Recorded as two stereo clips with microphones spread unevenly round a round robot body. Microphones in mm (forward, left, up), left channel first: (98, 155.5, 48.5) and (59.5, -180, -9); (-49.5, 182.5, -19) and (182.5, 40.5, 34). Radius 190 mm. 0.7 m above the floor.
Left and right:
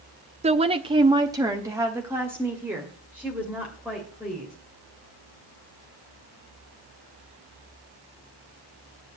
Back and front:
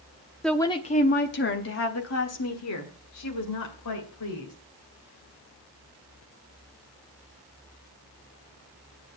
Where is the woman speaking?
140° right, 0.5 m; by 4.5 s straight behind, 2.5 m.